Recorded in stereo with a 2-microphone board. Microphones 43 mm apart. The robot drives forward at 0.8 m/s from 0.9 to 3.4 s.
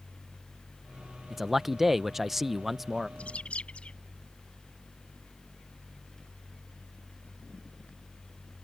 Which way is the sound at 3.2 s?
25° left (ahead or behind).